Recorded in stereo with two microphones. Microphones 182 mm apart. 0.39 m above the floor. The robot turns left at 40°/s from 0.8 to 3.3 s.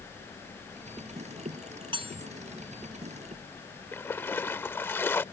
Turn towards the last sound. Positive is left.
turn(degrees=10)  # may be behind; listen again after turning